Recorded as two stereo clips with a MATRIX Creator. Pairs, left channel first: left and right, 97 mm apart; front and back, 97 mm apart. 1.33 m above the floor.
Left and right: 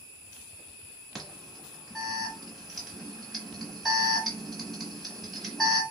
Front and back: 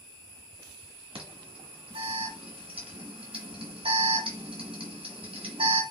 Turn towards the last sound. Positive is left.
turn(degrees=180)